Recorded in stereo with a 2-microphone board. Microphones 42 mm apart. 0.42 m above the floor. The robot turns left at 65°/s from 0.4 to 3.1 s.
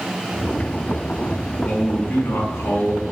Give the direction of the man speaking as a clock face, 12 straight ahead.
7 o'clock.